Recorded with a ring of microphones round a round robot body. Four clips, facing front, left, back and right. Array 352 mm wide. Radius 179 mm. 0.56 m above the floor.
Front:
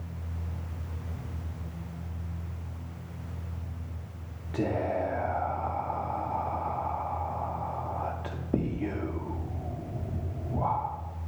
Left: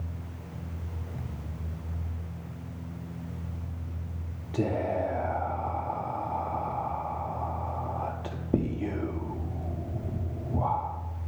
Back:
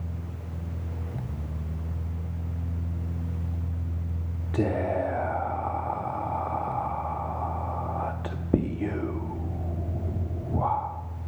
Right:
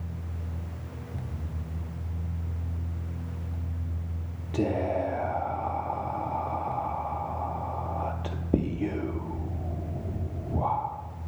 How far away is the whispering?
About 0.6 m.